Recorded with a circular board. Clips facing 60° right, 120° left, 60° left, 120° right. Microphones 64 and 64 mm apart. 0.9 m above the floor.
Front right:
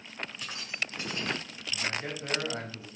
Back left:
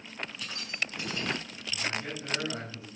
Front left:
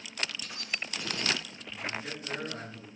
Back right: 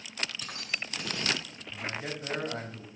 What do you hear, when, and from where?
0.4 s keys jangling: 120° right, 6 m; by 1.6 s 115° right, 6.5 m
1.7 s a man speaking: 110° right, 6 m